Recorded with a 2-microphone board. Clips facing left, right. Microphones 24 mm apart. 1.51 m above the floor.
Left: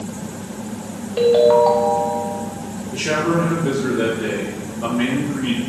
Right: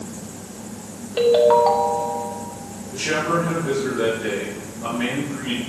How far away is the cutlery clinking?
No cutlery clinking in this recording.